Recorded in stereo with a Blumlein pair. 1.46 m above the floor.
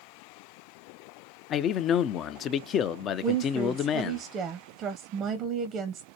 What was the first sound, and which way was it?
A man speaking, 30° left.